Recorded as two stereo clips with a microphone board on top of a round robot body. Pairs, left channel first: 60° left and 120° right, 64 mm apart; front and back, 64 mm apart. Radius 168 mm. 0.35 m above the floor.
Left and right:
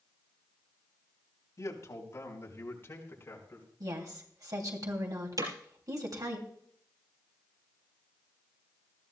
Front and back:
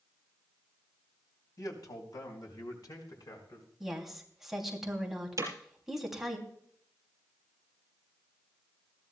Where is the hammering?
145° right, 4.5 m.